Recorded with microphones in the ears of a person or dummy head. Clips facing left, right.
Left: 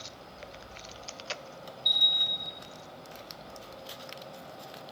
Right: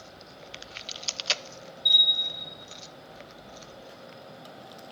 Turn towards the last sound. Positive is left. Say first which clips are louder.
# right 1 dB
turn(degrees=-75)  # may be behind; listen again after turning